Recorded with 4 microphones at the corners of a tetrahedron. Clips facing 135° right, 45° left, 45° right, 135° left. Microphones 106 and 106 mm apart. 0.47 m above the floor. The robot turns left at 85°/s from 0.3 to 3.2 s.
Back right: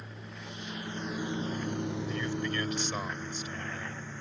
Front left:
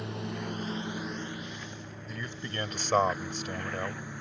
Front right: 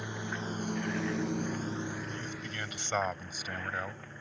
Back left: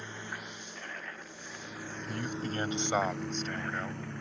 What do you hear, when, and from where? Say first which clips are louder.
0.0 s a lawn mower: front left 10 dB, front right 5 dB; 30° left; by 4.2 s 120° left
2.1 s a man speaking: back right 6 dB, back left 5 dB; 135° left; by 4.0 s 40° left